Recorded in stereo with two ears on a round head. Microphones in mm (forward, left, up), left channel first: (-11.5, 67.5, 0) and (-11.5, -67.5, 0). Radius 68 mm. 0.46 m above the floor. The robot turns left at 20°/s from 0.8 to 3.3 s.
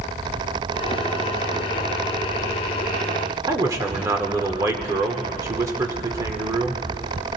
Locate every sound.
3.5 s a man speaking: 20° right (ahead or behind), 1.2 m